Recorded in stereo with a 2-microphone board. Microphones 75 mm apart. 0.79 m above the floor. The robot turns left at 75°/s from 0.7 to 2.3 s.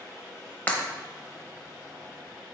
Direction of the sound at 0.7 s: 20° left (ahead or behind).